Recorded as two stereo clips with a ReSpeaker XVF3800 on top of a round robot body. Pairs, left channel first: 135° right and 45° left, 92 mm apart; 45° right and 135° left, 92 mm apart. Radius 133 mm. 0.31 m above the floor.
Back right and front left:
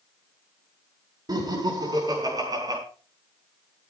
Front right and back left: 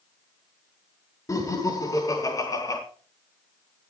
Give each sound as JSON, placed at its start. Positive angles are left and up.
{"t": 1.3, "sound": "laughter", "azimuth_deg": 5, "distance_m": 5.5}